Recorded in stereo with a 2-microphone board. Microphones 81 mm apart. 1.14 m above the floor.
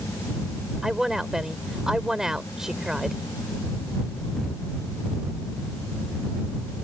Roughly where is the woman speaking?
Centre.